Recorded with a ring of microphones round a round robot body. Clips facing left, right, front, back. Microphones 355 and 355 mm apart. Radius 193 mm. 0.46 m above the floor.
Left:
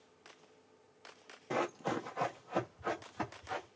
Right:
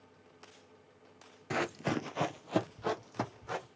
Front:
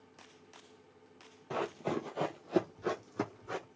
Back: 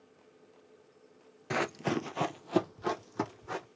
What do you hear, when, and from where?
1.5 s running footsteps: 145° right, 0.7 m; by 3.7 s 95° right, 1.9 m